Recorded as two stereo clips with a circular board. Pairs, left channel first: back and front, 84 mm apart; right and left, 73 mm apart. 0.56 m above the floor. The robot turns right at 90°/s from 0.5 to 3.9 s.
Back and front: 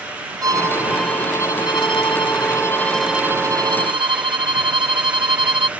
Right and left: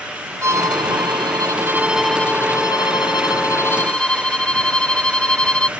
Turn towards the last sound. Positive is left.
turn(degrees=-15)